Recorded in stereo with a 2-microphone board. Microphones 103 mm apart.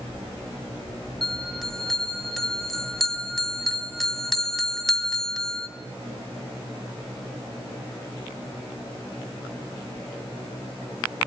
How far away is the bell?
About 2 m.